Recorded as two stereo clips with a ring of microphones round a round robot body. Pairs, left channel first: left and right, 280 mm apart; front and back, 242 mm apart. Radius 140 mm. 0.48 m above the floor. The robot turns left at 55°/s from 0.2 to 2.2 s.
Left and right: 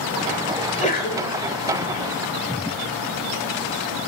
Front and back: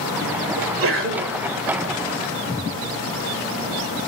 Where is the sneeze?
170° left, 1.8 m; by 1.4 s 130° left, 1.8 m.